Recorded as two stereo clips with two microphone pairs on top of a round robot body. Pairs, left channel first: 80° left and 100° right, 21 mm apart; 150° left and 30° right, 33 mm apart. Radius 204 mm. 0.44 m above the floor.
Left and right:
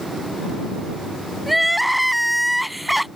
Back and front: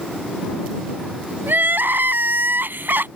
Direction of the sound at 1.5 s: 15° right.